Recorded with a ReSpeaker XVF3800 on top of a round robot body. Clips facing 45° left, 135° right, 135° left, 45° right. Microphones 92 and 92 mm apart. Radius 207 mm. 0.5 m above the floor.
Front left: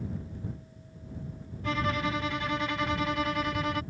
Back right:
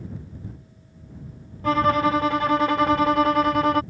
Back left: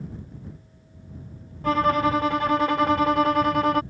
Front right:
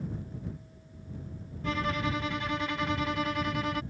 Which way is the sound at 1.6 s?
Straight behind.